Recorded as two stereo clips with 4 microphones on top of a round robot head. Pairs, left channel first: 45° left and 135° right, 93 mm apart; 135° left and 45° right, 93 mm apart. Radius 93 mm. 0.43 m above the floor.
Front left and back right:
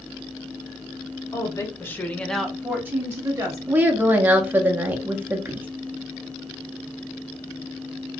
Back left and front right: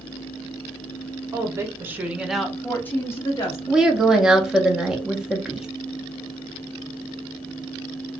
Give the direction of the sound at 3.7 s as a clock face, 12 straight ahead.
4 o'clock.